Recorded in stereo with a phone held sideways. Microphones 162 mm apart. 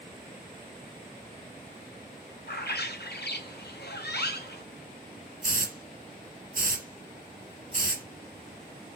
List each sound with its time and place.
2.5 s a bird: 85° left, 0.7 m
5.4 s a hiss: 55° right (ahead or behind), 1.4 m